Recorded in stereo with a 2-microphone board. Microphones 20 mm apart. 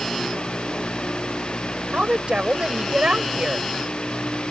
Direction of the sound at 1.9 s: 60° right (ahead or behind).